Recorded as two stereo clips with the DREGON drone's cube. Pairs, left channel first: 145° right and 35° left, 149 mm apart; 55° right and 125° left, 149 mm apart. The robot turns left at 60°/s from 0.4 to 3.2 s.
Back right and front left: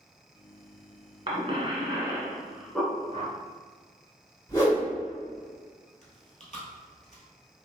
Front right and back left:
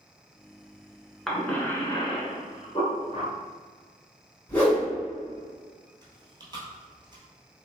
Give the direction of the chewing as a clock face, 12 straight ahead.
6 o'clock.